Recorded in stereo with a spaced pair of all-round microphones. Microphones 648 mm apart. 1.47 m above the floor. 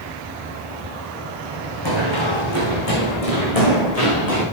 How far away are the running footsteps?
About 4 m.